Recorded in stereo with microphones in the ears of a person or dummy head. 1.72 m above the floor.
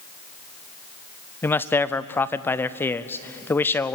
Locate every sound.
1.4 s a man speaking: 15° left (ahead or behind), 0.6 m